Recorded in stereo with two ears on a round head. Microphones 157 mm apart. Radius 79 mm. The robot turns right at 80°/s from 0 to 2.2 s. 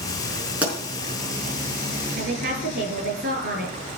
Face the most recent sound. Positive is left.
turn(degrees=-60)  # may be behind; listen again after turning